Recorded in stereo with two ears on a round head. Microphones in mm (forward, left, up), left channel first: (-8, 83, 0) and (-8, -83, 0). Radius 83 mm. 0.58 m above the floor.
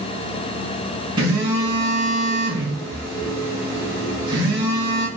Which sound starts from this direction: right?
A phone buzzing, at 1.2 s.